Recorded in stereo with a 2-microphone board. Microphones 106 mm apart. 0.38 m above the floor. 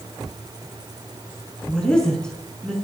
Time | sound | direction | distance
1.7 | a woman speaking | 5° left (ahead or behind) | 4 m